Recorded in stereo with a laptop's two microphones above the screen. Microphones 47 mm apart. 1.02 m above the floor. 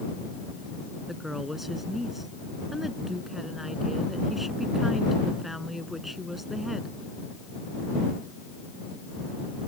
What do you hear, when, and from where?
1.1 s a woman speaking: centre (ahead or behind)